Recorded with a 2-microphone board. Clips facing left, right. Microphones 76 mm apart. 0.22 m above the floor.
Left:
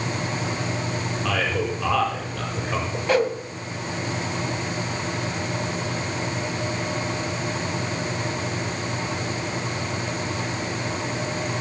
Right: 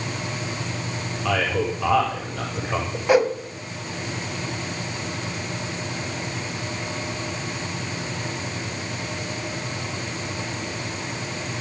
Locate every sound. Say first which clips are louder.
1.2 s a man speaking: right 3 dB; 5° right (ahead or behind), 8.5 m
3.1 s a whoosh: right 3 dB; 15° right (ahead or behind), 1.5 m